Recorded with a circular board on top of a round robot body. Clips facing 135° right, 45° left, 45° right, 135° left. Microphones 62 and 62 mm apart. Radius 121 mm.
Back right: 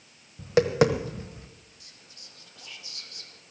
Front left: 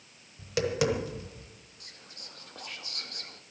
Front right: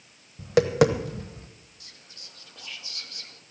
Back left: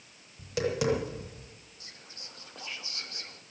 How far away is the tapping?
About 1.0 m.